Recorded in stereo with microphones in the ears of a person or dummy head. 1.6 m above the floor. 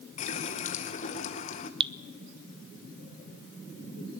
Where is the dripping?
35° right (ahead or behind), 1.0 m.